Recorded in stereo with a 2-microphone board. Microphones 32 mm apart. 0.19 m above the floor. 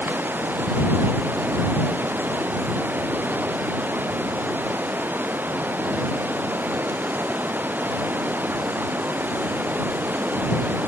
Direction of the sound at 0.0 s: 75° right (ahead or behind).